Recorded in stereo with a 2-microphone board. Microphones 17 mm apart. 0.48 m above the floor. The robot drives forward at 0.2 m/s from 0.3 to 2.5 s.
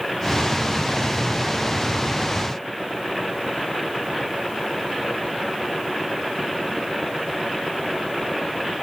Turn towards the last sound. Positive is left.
No sound to turn to.